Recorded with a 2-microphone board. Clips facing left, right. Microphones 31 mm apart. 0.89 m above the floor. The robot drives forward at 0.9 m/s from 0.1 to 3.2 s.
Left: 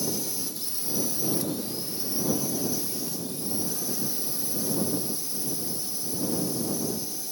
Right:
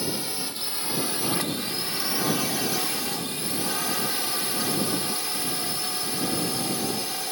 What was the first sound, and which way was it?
A drone, 50° right (ahead or behind).